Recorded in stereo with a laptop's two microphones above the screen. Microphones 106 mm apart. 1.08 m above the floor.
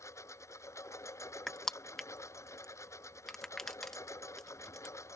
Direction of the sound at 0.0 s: 25° left (ahead or behind).